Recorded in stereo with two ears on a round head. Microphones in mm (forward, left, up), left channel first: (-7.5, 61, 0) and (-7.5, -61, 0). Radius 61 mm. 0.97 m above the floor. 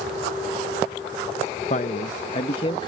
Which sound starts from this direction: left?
A man speaking, at 1.7 s.